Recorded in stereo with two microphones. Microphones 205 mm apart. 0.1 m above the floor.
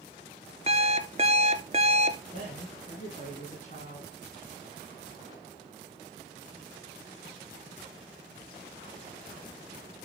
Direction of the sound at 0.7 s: 35° right (ahead or behind).